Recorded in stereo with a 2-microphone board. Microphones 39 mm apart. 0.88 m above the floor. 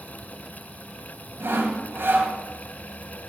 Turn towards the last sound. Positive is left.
turn(degrees=-70)  # may be behind; listen again after turning